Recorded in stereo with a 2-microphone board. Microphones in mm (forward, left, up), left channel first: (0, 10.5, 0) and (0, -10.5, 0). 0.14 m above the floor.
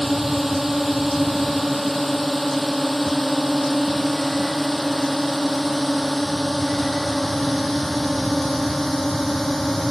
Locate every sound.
0.0 s a drone: 15° right (ahead or behind); by 9.9 s 20° left (ahead or behind)